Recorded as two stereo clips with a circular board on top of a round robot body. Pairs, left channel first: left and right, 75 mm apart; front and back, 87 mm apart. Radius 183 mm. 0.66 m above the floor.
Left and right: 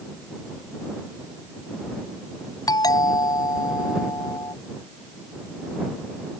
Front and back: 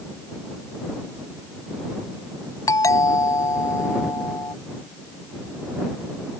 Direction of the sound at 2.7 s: 55° left.